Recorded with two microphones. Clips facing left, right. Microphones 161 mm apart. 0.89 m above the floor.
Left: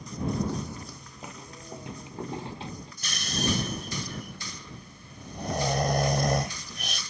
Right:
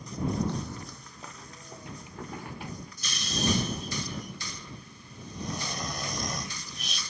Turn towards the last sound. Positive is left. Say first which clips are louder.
# even
turn(degrees=60)  # may be behind; listen again after turning